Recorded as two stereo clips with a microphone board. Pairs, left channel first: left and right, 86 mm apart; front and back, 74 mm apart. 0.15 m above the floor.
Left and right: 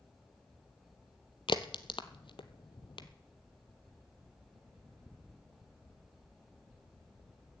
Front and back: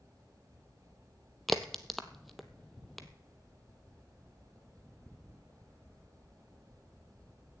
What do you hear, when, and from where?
1.5 s a crack: 90° left, 0.7 m